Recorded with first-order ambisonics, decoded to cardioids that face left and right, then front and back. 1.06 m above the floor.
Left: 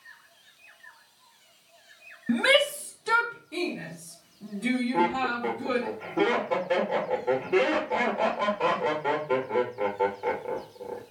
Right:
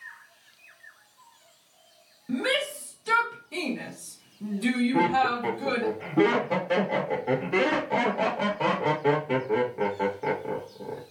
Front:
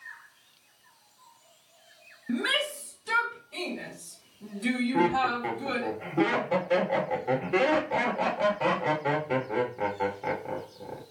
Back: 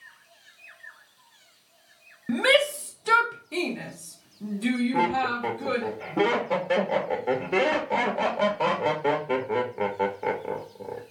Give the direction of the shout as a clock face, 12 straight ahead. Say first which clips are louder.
Left 5 dB, back 7 dB; 7 o'clock.